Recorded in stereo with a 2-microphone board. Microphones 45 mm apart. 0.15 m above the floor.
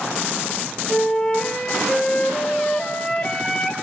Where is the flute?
15° left (ahead or behind), 3 m.